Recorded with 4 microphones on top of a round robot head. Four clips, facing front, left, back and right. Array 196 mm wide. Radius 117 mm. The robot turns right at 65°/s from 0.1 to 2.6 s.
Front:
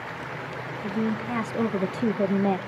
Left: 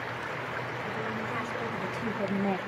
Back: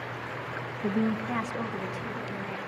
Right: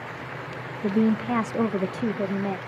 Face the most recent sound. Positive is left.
turn(degrees=5)